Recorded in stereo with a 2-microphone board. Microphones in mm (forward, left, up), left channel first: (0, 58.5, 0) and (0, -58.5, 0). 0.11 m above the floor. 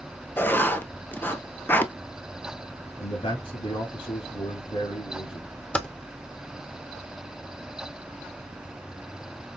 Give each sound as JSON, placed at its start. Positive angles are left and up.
{"t": 0.4, "sound": "writing", "side_deg": 20, "distance_m": 0.5}
{"t": 3.0, "sound": "a man speaking", "side_deg": 55, "distance_m": 2.5}
{"t": 5.7, "sound": "typing on a keyboard", "side_deg": 10, "distance_m": 0.7}